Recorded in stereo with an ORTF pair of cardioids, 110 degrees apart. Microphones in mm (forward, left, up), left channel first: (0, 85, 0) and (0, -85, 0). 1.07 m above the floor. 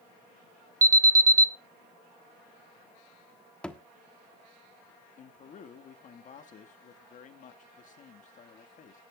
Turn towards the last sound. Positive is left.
turn(degrees=50)